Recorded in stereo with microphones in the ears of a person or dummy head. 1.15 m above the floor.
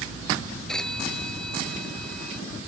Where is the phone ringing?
5° left (ahead or behind).